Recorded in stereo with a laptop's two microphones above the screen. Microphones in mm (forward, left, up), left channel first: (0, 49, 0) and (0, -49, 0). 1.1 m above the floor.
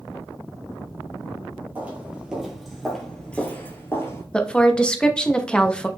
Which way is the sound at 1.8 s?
15° right (ahead or behind).